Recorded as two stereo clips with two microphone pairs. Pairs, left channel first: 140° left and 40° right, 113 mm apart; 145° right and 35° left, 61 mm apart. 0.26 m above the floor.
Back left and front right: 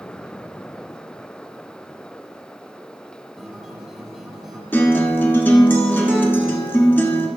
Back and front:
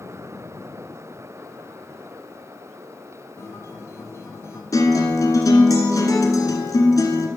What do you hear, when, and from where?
3.4 s a guitar: 125° right, 1.5 m
4.7 s a guitar: 150° right, 1.4 m